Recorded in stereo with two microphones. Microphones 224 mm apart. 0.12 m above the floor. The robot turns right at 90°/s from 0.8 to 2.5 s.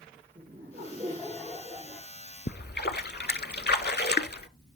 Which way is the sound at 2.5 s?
50° left (ahead or behind).